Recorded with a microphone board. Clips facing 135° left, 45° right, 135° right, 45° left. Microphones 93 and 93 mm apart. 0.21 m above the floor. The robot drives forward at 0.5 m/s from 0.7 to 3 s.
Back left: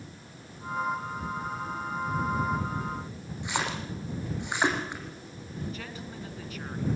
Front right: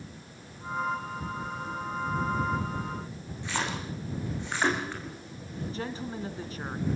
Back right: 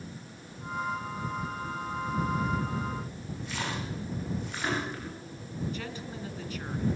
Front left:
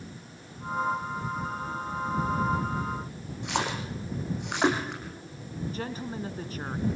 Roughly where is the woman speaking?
Ahead.